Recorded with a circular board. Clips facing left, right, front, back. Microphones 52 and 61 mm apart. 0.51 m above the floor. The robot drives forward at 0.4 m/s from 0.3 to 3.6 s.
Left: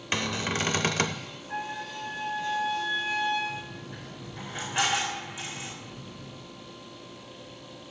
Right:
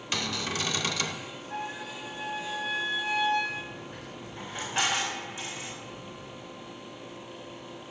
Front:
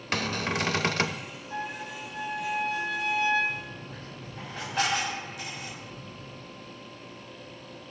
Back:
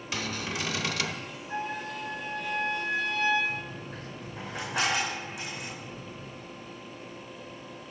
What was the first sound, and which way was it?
A cupboard door, 30° left.